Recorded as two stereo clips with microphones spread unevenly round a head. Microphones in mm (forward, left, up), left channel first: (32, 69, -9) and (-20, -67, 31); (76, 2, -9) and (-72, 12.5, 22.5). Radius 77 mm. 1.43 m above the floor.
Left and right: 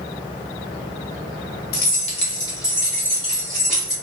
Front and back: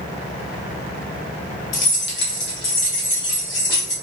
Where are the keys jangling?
40° left, 0.9 m; by 3.9 s 25° right, 2.5 m.